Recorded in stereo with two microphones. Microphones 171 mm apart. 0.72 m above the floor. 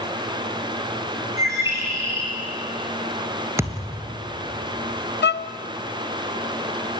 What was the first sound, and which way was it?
A bird, 15° right (ahead or behind).